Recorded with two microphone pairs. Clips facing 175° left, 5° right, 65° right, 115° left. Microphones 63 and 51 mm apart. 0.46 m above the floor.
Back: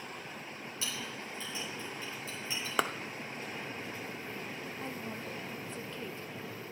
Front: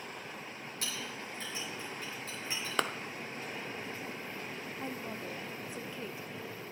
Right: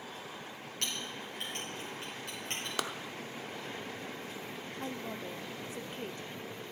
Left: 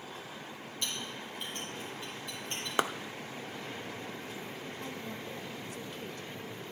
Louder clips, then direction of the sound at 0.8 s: Even, even; 40° right.